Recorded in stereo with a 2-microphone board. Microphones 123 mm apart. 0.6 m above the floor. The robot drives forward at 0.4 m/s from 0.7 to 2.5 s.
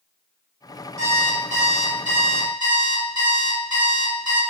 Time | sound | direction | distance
1.0 | an alarm clock | 55° right (ahead or behind) | 1.1 m